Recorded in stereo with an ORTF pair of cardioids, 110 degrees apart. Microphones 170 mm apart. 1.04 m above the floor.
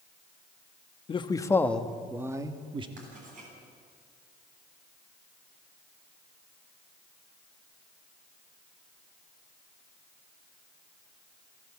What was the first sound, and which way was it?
A man speaking, 35° left.